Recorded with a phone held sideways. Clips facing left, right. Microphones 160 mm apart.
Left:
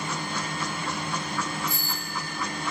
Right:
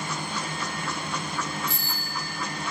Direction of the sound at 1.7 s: 75° right (ahead or behind).